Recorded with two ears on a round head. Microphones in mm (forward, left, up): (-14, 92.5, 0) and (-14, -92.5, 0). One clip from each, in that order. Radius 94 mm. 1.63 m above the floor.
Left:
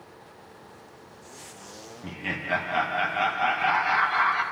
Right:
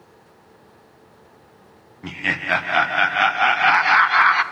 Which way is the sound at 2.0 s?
60° right (ahead or behind).